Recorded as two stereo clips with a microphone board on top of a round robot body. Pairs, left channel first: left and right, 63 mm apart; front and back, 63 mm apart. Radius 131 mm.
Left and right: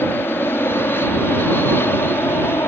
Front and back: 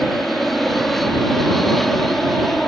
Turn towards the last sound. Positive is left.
turn(degrees=85)